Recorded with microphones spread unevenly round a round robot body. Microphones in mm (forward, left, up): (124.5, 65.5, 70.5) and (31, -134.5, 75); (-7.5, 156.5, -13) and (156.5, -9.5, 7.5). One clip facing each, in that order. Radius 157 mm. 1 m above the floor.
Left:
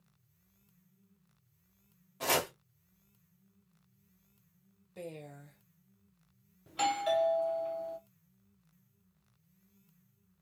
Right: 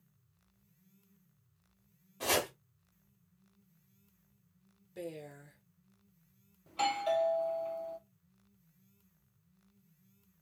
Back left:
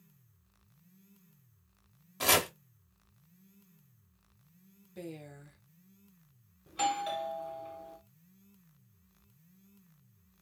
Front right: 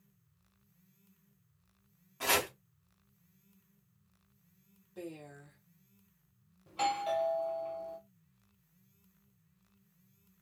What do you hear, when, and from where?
2.2 s chopping: 155° left, 0.6 m
5.0 s a woman speaking: 170° left, 0.8 m
6.7 s a doorbell: 115° left, 0.5 m